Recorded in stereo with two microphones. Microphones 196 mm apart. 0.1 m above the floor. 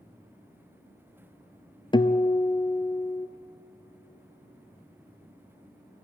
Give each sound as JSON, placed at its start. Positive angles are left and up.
{"t": 1.9, "sound": "a guitar", "side_deg": 25, "distance_m": 0.5}